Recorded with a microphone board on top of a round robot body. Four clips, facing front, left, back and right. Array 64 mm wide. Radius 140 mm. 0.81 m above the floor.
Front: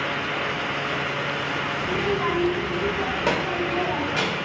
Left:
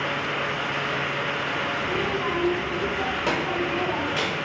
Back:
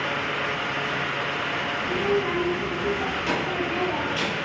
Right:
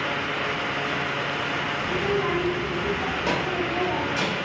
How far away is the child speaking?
About 3.5 m.